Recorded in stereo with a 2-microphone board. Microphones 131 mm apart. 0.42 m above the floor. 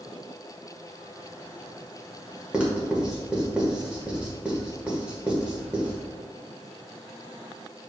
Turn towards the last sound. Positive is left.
turn(degrees=-10)  # may be behind; listen again after turning